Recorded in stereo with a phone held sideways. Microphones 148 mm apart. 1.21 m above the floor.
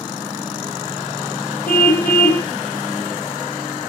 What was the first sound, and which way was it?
A car horn, 80° left.